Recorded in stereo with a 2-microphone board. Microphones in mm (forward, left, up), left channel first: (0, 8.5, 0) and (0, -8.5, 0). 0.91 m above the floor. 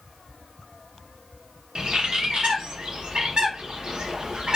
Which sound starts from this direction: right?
A bird, at 1.8 s.